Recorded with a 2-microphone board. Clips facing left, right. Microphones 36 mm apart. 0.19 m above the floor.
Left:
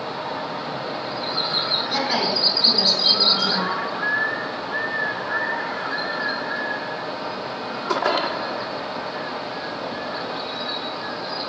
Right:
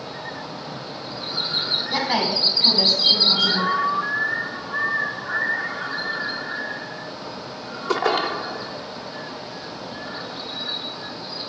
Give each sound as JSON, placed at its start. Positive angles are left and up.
{"t": 1.9, "sound": "a woman speaking", "side_deg": -15, "distance_m": 1.2}